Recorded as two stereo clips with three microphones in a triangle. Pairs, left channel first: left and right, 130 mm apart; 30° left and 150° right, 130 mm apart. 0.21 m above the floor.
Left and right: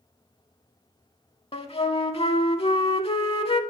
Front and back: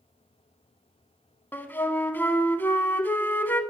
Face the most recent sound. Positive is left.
turn(degrees=95)